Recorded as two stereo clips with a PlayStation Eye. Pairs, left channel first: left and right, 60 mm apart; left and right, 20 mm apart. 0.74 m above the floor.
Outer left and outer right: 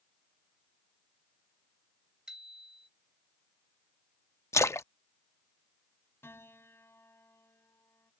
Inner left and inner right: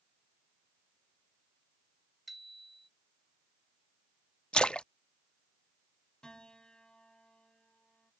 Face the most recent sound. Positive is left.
turn(degrees=40)  # may be behind; listen again after turning